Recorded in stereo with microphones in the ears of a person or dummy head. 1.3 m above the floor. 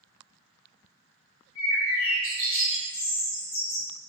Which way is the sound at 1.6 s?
75° left (ahead or behind).